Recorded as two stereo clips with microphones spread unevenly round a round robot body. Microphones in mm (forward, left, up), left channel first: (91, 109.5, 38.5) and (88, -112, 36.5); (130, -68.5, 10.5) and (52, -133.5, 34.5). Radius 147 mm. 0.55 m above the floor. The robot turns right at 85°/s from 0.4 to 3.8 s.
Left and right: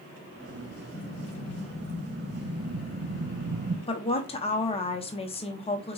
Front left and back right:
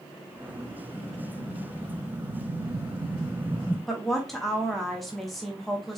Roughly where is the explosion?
Left.